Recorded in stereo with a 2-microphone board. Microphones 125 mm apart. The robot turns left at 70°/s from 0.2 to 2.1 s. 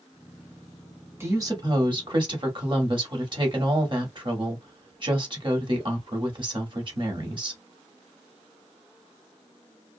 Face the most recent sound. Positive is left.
turn(degrees=-95)